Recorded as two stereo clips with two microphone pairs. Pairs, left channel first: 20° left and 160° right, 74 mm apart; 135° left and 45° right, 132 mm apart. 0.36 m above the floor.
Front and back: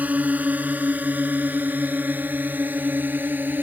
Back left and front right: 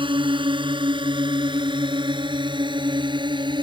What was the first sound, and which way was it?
A drone, 95° right.